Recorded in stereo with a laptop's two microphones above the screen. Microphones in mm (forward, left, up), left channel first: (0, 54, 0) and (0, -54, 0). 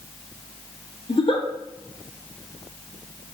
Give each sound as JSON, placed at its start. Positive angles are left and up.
{"t": 1.1, "sound": "a giggle", "side_deg": 55, "distance_m": 1.0}